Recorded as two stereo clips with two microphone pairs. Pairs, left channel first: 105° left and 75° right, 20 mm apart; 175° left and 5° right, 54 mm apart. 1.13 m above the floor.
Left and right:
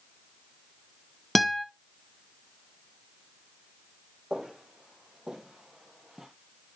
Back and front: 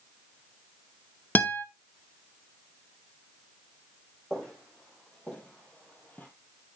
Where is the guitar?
175° right, 0.7 m.